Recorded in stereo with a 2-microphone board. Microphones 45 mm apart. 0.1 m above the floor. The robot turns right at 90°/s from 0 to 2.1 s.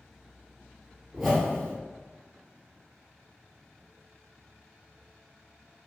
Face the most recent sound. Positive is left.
turn(degrees=70)